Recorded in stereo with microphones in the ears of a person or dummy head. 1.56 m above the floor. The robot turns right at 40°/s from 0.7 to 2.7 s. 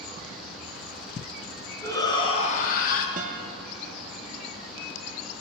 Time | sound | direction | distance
1.8 | a shout | 15° left | 1.3 m
3.2 | a guitar | 45° right (ahead or behind) | 0.8 m